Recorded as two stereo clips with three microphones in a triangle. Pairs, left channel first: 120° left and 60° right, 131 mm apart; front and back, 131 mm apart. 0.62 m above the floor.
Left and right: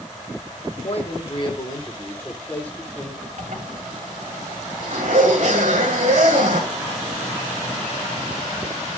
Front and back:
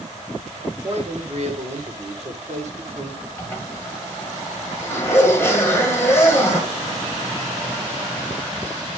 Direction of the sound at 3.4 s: 75° right.